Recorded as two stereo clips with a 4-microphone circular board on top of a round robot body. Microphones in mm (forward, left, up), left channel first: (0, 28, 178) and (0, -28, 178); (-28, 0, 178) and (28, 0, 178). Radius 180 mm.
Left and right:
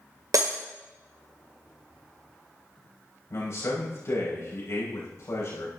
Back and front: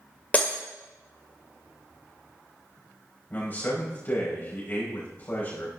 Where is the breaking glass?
110° right, 1.8 m.